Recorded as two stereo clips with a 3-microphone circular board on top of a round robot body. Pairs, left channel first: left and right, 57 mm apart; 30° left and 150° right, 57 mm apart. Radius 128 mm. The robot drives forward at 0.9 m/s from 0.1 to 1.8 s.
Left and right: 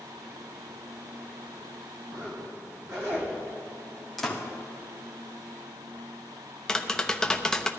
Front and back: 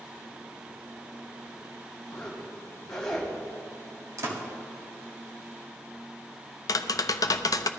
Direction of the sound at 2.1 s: 50° right.